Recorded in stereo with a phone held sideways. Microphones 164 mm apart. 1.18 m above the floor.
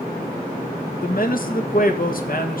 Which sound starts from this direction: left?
A man speaking, at 1.0 s.